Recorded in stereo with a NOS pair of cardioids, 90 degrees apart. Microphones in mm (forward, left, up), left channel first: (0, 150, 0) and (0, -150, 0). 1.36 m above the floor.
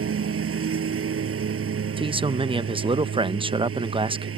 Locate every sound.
0.0 s a lawn mower: 50° right
2.0 s a man speaking: 20° right